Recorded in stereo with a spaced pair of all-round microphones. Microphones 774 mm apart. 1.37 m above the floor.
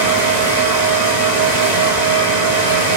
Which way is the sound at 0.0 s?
60° right (ahead or behind).